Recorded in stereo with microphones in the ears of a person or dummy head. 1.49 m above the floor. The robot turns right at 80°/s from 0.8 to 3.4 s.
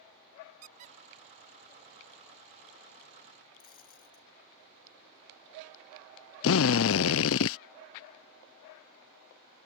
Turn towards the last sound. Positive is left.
turn(degrees=70)  # may be behind; listen again after turning